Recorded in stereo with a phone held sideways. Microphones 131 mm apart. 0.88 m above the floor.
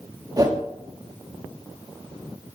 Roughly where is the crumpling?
I don't hear crumpling.